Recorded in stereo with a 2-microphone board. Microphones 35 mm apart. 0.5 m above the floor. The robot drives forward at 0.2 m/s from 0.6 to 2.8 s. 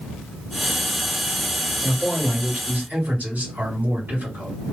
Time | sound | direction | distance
1.8 | a man speaking | 50° right (ahead or behind) | 1.9 m